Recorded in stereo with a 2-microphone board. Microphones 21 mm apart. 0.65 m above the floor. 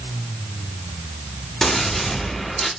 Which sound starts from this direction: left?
A gunshot, at 1.6 s.